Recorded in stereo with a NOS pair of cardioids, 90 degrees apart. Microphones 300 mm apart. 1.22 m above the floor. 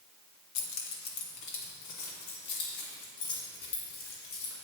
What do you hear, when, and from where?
0.6 s keys jangling: 65° left, 1.4 m; by 4.5 s 70° left, 4.5 m